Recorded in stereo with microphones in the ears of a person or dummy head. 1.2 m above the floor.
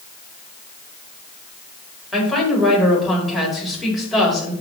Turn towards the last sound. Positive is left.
turn(degrees=-5)  # may be behind; listen again after turning